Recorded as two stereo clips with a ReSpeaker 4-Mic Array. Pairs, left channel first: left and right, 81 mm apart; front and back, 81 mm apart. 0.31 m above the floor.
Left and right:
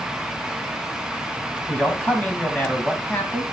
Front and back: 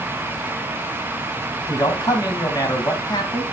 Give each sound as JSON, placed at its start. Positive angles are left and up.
{"t": 1.7, "sound": "a man speaking", "azimuth_deg": 20, "distance_m": 2.0}